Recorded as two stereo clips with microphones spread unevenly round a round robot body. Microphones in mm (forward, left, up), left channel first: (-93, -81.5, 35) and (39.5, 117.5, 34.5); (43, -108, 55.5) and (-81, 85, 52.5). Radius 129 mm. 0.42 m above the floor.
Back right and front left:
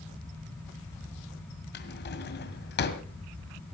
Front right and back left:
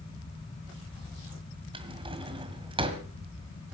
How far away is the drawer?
About 1.9 m.